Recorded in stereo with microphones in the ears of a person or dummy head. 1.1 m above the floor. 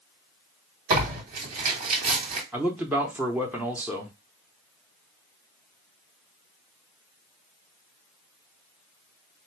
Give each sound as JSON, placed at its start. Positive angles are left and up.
{"t": 0.9, "sound": "tearing paper", "side_deg": -45, "distance_m": 2.5}
{"t": 2.5, "sound": "a man speaking", "side_deg": -10, "distance_m": 0.7}